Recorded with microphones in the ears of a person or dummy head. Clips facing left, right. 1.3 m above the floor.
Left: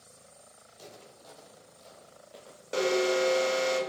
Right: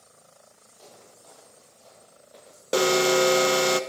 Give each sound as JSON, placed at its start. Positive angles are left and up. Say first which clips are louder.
{"t": 0.7, "sound": "footsteps", "louder": "left 2 dB", "side_deg": 25, "distance_m": 3.0}
{"t": 2.7, "sound": "an alarm", "louder": "right 5 dB", "side_deg": -65, "distance_m": 0.6}